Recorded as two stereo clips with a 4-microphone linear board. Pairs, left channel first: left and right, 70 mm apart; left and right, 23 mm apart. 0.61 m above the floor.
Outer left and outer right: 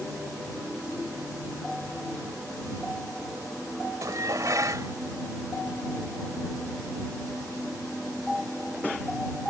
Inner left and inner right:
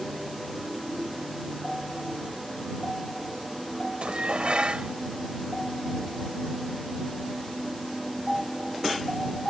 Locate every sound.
4.0 s dishes clattering: 55° right (ahead or behind)